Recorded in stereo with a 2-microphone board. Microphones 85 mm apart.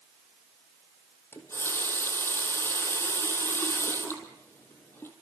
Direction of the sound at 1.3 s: 25° left (ahead or behind).